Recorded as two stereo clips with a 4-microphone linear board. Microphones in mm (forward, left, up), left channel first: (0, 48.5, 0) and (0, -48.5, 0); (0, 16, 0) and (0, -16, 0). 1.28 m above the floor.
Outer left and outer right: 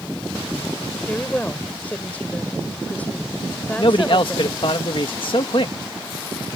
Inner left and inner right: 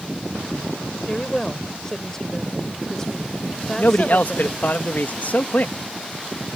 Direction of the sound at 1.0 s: 15° left (ahead or behind).